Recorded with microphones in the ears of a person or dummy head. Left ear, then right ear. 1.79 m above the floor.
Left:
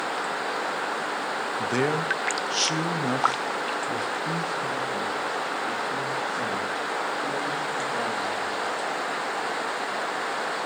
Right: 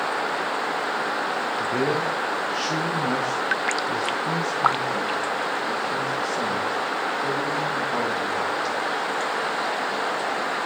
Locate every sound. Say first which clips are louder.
1.6 s a man speaking: even; 75° left (ahead or behind), 1.2 m; by 8.7 s 30° right (ahead or behind), 4 m